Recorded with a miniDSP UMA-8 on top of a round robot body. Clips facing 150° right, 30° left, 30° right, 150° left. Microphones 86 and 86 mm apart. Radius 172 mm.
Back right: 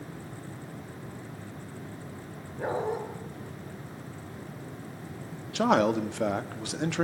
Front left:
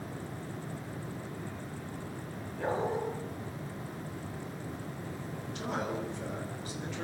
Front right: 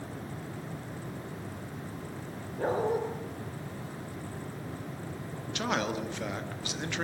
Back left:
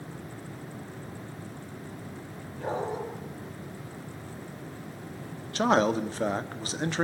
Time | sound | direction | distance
2.6 | a dog barking | 75° right | 5 m
5.5 | a man speaking | 155° right | 1.7 m